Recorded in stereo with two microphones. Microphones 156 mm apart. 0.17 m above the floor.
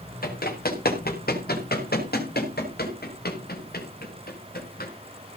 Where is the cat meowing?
I don't hear a cat meowing.